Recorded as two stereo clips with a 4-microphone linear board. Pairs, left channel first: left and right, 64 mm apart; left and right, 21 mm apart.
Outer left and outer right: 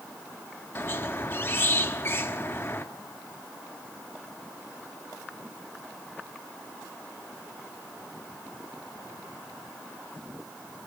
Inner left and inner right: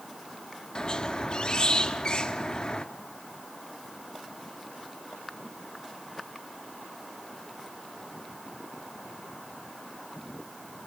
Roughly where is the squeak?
Left.